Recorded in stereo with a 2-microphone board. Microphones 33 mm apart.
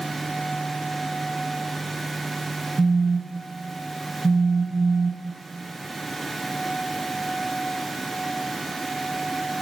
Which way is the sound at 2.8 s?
45° right (ahead or behind).